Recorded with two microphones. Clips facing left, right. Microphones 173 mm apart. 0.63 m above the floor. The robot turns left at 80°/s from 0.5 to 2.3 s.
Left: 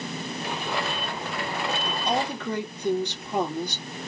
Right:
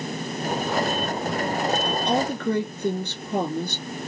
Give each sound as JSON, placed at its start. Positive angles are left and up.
{"t": 1.9, "sound": "a woman speaking", "azimuth_deg": -75, "distance_m": 2.5}